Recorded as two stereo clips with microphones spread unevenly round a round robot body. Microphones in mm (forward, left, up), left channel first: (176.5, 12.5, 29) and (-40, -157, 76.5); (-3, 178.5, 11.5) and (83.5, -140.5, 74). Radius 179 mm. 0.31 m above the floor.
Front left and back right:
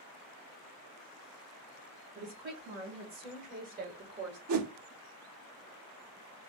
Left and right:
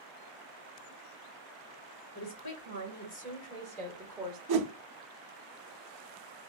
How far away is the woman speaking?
About 1.6 m.